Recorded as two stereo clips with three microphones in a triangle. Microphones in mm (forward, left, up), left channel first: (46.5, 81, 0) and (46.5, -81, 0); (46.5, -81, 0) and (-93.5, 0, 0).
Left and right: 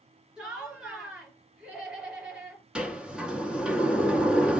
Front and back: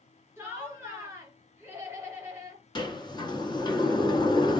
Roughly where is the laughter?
Behind.